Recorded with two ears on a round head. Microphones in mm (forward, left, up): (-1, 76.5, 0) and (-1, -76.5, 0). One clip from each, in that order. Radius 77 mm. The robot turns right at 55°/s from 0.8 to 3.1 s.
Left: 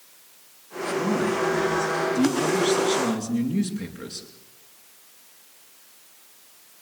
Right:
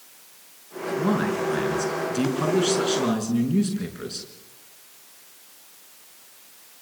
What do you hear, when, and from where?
1.0 s a man speaking: 125° right, 5.5 m; by 4.3 s 5° right, 5.5 m